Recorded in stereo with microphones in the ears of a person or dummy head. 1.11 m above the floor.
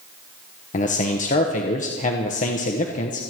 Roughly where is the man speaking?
Left.